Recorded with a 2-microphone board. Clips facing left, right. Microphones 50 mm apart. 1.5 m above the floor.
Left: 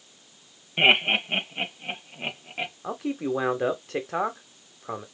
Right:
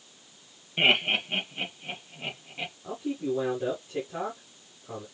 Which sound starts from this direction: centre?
Laughter, at 0.8 s.